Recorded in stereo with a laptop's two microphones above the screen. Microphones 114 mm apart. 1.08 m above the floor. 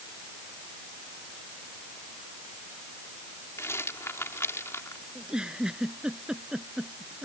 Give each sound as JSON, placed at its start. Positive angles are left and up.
{"t": 3.6, "sound": "a rattle", "side_deg": 25}
{"t": 5.2, "sound": "a giggle", "side_deg": -5}